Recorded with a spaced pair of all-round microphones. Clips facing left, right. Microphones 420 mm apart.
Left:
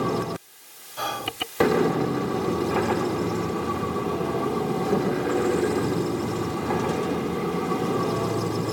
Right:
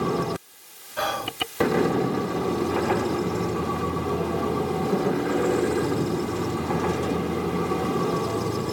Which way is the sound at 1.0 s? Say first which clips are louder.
Right 3 dB; 80° right.